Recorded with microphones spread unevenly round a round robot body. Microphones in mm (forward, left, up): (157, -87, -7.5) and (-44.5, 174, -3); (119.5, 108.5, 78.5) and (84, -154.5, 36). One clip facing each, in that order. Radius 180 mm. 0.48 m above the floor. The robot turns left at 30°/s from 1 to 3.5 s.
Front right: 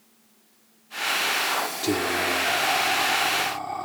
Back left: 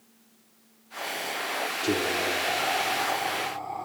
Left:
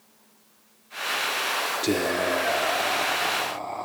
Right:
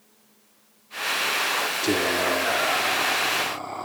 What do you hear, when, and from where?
1.8 s whispering: 10° right, 1.1 m; by 3.9 s 60° right, 1.1 m